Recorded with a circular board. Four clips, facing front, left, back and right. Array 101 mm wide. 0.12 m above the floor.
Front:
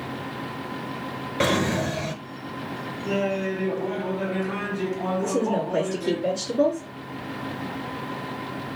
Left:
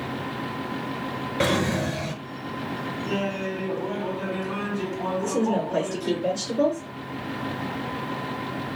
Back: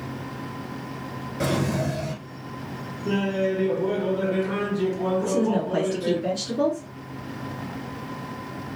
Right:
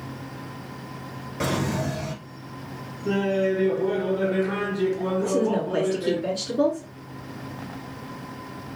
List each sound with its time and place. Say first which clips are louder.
1.4 s a drawer: left 2 dB, front 2 dB; 40° left, 0.6 m
3.0 s laughter: right 7 dB, back 2 dB; 115° right, 2 m
5.2 s a woman speaking: even, front 1 dB; 115° right, 1.2 m